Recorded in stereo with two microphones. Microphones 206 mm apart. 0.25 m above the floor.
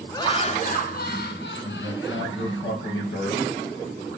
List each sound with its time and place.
0.1 s laughter: 15° left (ahead or behind), 1.2 m; by 2.6 s 70° left (ahead or behind), 4 m
1.6 s a man speaking: 75° left (ahead or behind), 5 m